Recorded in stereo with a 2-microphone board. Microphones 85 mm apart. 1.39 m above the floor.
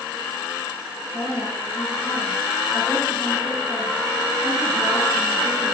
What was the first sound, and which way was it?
A woman speaking, 55° left (ahead or behind).